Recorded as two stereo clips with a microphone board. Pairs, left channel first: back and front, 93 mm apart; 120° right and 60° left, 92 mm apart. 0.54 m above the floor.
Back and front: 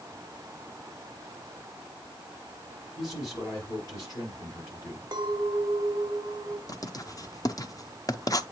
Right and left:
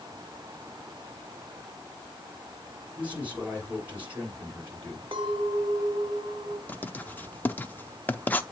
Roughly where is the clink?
Ahead left.